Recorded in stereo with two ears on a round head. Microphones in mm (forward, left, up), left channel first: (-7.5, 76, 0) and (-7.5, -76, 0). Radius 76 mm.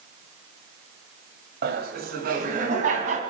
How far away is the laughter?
About 2 m.